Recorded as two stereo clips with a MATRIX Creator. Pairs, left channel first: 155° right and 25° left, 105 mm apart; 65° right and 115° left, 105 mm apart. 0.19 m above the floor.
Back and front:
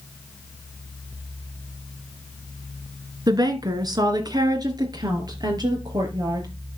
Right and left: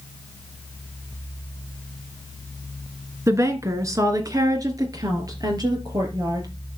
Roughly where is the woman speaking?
Ahead left.